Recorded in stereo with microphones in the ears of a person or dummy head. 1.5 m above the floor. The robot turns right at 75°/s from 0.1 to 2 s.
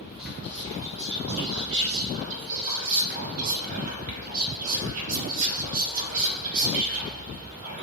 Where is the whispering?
Straight behind, 1.2 m; by 7.8 s 45° right, 1.2 m.